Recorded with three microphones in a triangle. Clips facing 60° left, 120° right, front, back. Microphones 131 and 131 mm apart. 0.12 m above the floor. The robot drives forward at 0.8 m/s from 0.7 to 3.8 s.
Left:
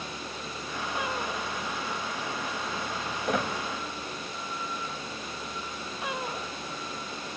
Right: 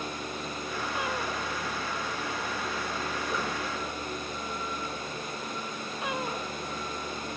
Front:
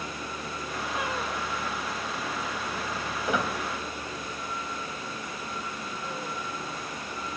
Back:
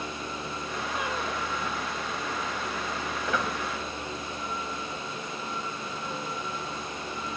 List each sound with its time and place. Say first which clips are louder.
3.2 s a squeak: left 7 dB, front 2 dB; 70° left, 3.5 m; by 3.5 s 75° left, 3.5 m